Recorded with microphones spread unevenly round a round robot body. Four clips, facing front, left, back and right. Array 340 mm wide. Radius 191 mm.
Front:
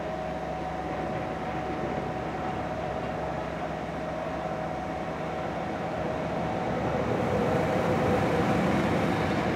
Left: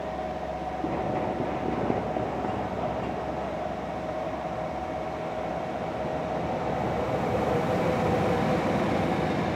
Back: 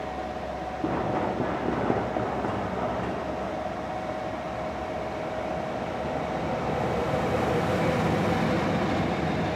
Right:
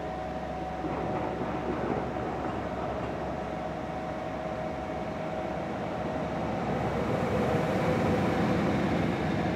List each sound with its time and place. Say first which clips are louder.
0.8 s running footsteps: left 3 dB, back 5 dB; 130° left, 4.5 m; by 5.3 s 125° left, 9.5 m